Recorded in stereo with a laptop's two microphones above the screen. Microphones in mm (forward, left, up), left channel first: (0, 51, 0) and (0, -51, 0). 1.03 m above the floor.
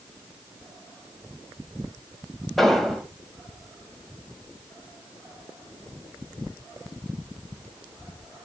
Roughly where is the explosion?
Centre.